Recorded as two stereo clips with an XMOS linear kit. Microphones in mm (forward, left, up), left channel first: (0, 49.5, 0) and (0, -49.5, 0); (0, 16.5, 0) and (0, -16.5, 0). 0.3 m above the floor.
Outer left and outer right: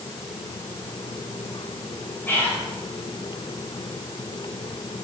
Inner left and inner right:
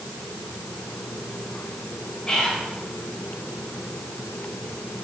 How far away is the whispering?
About 0.9 m.